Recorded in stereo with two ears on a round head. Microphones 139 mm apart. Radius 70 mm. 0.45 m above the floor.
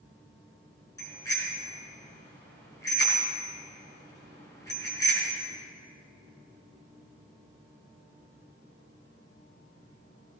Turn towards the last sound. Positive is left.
turn(degrees=25)  # may be behind; listen again after turning